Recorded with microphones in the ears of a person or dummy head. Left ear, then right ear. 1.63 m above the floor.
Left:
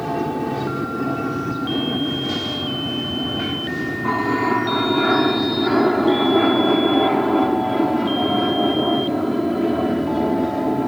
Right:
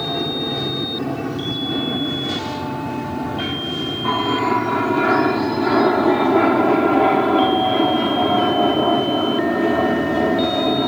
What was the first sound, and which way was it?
An aircraft, centre (ahead or behind).